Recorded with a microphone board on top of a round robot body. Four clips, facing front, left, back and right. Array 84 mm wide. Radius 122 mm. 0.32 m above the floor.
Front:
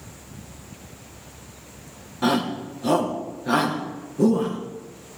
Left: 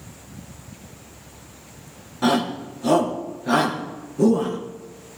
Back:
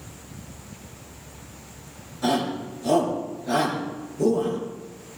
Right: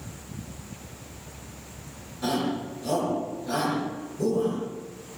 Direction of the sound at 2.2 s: 50° left.